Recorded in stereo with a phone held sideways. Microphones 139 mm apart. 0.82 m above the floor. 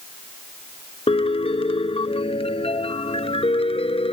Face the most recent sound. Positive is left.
turn(degrees=45)  # may be behind; listen again after turning